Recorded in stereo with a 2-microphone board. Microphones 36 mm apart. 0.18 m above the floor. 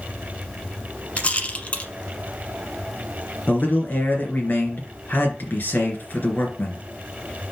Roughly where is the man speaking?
Left.